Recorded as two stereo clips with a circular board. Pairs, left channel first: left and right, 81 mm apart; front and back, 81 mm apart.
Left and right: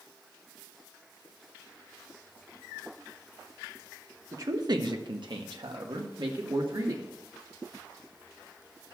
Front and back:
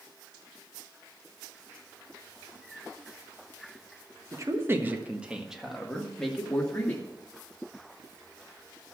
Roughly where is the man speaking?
Behind right.